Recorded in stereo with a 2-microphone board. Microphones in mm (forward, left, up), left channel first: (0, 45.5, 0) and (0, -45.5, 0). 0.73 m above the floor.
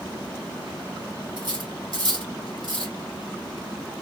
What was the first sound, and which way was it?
Cutlery clinking, 55° right (ahead or behind).